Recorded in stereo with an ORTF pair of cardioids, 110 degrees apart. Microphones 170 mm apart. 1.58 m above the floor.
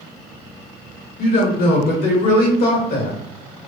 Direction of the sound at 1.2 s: 60° left.